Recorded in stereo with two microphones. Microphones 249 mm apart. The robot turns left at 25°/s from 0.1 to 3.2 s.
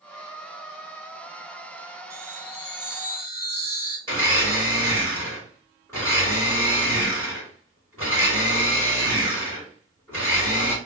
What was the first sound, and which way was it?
A chime, 15° left (ahead or behind).